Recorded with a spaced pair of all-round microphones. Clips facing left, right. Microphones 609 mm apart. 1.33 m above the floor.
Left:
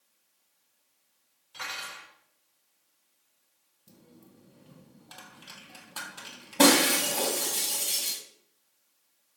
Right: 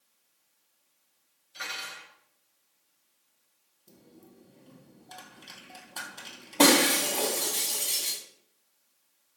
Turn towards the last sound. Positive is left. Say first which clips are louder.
# even
turn(degrees=40)  # may be behind; listen again after turning